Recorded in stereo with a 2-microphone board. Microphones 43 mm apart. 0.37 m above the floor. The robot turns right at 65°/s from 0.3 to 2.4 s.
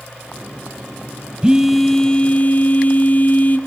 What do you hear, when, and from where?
1.4 s a phone buzzing: 20° right, 1.4 m; by 3.6 s 45° left, 1.4 m